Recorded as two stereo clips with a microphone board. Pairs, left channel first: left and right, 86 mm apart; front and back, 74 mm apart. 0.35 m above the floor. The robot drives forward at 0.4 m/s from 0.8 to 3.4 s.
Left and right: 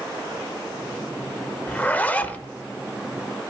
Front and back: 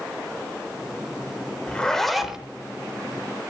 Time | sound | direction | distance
1.7 | a zipper | 50° left | 0.7 m